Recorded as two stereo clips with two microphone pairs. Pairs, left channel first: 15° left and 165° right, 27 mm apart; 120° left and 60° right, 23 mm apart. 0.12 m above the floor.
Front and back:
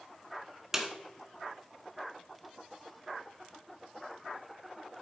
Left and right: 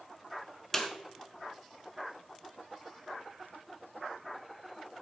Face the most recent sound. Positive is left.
turn(degrees=150)